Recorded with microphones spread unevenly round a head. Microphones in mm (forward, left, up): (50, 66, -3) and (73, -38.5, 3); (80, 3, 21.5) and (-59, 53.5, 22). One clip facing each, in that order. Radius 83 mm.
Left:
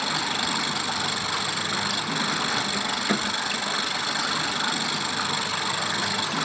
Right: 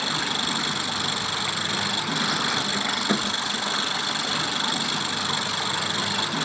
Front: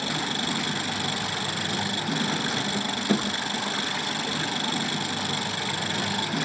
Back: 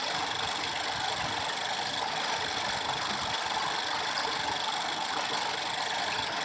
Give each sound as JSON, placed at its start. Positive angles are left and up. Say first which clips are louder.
{"t": 0.0, "sound": "an engine running", "louder": "left 1 dB, front 4 dB", "azimuth_deg": 10}